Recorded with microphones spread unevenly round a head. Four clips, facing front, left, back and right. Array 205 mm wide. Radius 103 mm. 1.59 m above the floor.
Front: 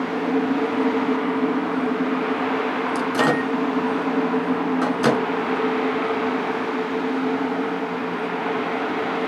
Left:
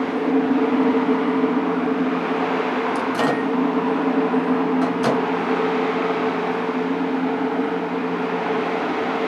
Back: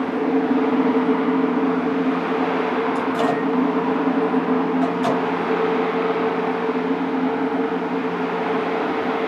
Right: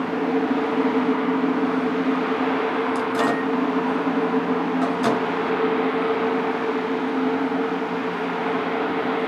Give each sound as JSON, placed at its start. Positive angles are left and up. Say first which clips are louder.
{"t": 3.0, "sound": "a microwave", "louder": "left 1 dB, even", "azimuth_deg": 5, "distance_m": 2.5}